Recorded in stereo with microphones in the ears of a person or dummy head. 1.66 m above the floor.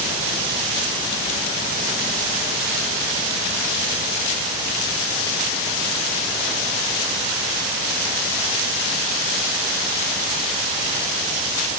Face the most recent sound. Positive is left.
No sound to turn to.